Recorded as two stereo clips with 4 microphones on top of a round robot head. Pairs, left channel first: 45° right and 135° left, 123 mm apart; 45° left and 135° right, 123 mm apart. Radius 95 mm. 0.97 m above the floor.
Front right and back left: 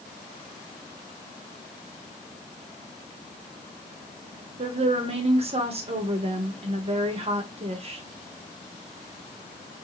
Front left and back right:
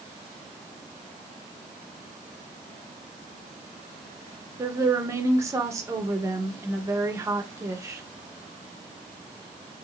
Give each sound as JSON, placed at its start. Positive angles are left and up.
{"t": 4.6, "sound": "a woman speaking", "azimuth_deg": 160, "distance_m": 1.4}